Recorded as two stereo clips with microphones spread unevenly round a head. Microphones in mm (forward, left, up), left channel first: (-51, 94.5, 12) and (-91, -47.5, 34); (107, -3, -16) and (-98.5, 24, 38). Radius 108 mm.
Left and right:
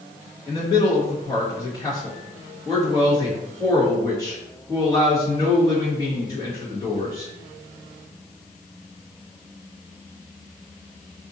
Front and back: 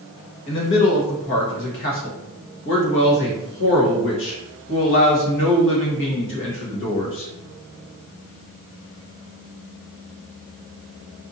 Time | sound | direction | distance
0.5 | a man speaking | 5° left | 1.4 m